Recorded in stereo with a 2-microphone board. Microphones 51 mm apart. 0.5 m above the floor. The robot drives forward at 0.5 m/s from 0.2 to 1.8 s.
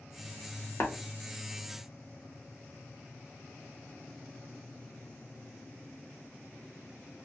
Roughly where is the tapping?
Left.